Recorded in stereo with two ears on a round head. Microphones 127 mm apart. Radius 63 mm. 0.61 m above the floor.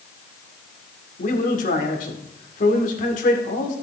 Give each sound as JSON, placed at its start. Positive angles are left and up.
{"t": 1.2, "sound": "a man speaking", "side_deg": 60, "distance_m": 1.9}